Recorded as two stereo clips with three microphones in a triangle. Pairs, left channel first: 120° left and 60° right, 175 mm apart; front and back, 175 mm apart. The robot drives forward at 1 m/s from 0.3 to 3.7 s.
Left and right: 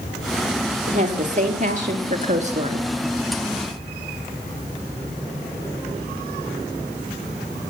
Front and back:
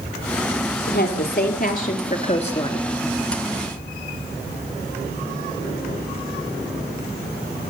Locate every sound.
0.9 s a woman speaking: 15° right, 3 m; by 2.9 s 50° right, 1.5 m